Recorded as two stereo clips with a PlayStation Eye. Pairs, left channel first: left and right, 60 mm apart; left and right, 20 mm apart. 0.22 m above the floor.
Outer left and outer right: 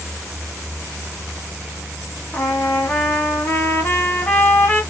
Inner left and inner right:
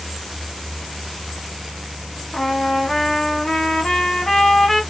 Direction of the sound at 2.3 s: 35° left (ahead or behind).